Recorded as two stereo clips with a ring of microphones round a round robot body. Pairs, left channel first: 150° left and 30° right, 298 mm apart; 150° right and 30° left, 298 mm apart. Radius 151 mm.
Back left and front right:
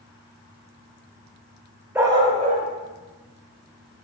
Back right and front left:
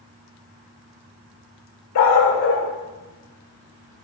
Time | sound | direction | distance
1.9 | a dog barking | 115° right | 0.9 m